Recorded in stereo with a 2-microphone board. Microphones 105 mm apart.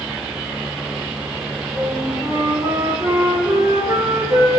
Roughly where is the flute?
Right.